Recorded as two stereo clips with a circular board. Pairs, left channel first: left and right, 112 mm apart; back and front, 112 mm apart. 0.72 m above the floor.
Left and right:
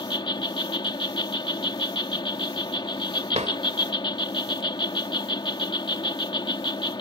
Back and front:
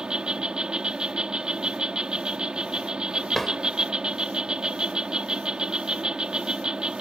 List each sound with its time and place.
0.0 s an insect: 80° left
3.3 s a drawer: 95° right